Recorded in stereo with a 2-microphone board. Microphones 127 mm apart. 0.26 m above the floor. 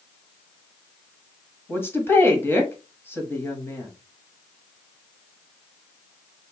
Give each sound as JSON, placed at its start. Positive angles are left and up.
{"t": 1.7, "sound": "a woman speaking", "side_deg": 20, "distance_m": 1.1}